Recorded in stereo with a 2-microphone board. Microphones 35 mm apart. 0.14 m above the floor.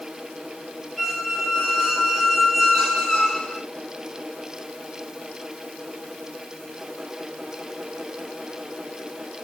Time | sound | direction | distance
1.0 | a squeak | centre (ahead or behind) | 3 m